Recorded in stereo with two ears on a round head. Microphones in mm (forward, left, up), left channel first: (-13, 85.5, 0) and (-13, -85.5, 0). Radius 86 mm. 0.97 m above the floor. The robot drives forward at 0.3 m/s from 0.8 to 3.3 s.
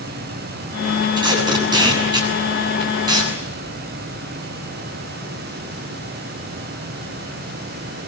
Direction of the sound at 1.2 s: 25° right (ahead or behind).